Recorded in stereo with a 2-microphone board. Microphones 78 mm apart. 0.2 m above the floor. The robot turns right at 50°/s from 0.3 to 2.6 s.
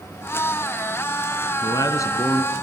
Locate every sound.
1.6 s a man speaking: 95° left, 2 m; by 2.5 s 145° left, 2 m